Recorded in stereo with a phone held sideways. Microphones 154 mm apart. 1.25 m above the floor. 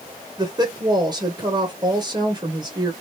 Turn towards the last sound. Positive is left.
turn(degrees=-30)  # may be behind; listen again after turning